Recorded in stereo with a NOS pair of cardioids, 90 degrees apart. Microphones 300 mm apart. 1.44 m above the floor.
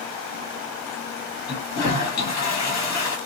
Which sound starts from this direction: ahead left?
A toilet flushing, at 1.5 s.